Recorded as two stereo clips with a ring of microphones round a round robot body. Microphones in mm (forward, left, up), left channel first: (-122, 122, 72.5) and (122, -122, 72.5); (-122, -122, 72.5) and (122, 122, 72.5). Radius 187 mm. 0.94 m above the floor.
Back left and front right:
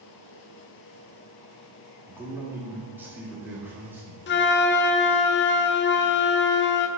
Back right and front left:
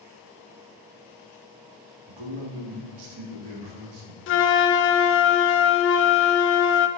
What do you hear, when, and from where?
2.1 s a man speaking: 40° left, 1.4 m
4.3 s a flute: 175° right, 0.5 m